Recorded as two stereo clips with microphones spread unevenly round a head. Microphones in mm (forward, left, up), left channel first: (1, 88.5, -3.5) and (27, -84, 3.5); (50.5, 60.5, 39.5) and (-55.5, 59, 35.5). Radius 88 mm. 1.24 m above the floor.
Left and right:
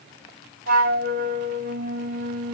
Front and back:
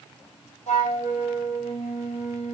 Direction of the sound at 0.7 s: 50° right.